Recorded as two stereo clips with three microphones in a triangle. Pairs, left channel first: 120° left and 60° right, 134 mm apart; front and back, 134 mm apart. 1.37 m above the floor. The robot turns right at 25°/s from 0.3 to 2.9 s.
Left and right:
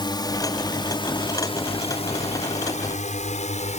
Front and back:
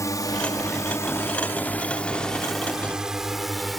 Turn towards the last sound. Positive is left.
turn(degrees=90)